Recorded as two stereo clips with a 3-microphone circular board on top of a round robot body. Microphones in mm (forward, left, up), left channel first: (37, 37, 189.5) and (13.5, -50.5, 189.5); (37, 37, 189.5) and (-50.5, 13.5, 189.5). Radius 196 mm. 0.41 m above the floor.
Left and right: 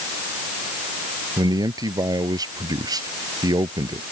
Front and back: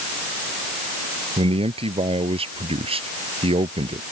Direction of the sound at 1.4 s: 155° right.